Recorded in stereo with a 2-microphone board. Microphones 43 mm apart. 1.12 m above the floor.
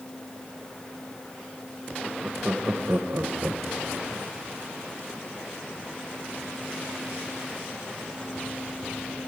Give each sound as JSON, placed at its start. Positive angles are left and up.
{"t": 2.0, "sound": "laughter", "side_deg": -40, "distance_m": 1.1}